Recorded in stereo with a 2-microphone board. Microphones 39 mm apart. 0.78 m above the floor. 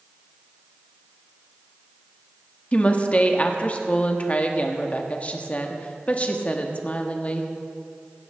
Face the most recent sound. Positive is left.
turn(degrees=35)  # may be behind; listen again after turning